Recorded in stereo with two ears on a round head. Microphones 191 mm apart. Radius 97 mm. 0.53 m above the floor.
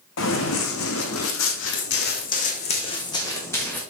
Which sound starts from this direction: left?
Running footsteps, at 0.2 s.